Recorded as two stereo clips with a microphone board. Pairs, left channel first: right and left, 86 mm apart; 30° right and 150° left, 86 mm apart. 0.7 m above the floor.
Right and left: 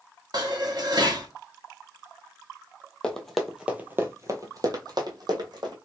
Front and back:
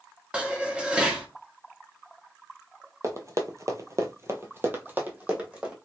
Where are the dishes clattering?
75° left, 0.9 m.